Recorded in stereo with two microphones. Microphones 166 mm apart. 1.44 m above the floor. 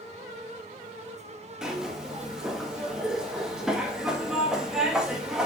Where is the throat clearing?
I don't hear throat clearing.